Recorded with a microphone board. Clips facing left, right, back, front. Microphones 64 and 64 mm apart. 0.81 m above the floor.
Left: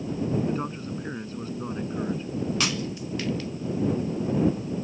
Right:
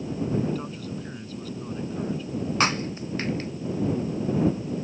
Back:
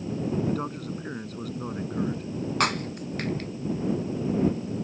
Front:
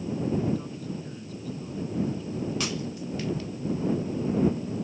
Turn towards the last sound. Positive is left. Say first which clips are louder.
# right 4 dB, back 5 dB
turn(degrees=-140)